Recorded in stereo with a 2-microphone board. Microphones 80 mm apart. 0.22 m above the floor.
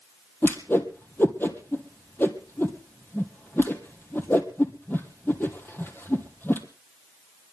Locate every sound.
0.4 s a whoosh: 25° left (ahead or behind), 1.7 m